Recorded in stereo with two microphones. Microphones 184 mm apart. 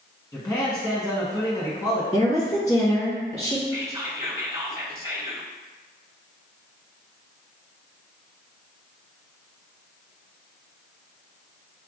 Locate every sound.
0.3 s a man speaking: 20° left (ahead or behind), 1.1 m
2.1 s a woman speaking: 40° left (ahead or behind), 1.7 m
3.7 s whispering: 20° right (ahead or behind), 1.2 m